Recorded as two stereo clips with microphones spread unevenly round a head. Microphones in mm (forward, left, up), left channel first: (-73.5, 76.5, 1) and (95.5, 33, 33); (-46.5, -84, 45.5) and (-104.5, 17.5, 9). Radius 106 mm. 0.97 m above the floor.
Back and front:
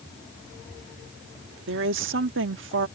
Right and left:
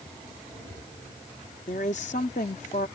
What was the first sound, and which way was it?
A woman speaking, 10° right.